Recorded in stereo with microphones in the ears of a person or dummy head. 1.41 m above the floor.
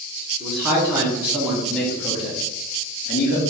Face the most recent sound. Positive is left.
turn(degrees=60)  # may be behind; listen again after turning